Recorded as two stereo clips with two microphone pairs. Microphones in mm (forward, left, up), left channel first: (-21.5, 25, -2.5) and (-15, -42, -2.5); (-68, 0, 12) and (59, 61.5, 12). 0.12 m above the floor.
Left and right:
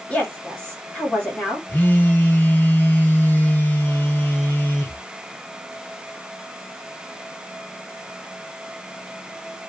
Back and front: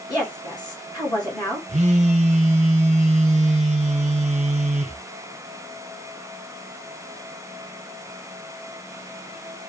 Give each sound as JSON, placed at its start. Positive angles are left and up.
{"t": 0.1, "sound": "a woman speaking", "azimuth_deg": 160, "distance_m": 1.6}
{"t": 1.7, "sound": "a phone buzzing", "azimuth_deg": 40, "distance_m": 0.5}